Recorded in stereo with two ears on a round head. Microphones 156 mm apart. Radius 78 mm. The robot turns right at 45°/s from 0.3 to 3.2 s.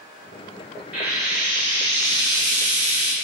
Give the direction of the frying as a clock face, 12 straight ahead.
6 o'clock.